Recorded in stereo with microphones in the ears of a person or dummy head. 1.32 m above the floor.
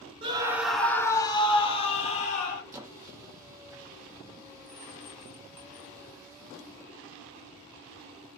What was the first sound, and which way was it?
A scream, 35° right (ahead or behind).